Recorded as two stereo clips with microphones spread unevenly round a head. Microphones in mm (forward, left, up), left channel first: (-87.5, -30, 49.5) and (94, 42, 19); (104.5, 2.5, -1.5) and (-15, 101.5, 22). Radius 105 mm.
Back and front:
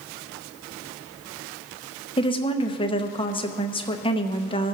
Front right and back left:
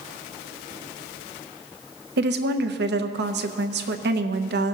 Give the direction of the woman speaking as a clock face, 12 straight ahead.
8 o'clock.